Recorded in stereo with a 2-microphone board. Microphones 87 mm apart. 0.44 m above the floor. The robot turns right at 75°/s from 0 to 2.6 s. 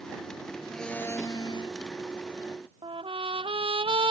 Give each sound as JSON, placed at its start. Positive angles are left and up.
{"t": 0.7, "sound": "a blender", "azimuth_deg": 0}
{"t": 2.8, "sound": "a trumpet", "side_deg": -85}